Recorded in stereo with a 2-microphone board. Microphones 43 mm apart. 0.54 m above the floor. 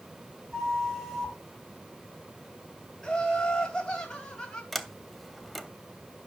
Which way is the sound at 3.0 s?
20° left (ahead or behind).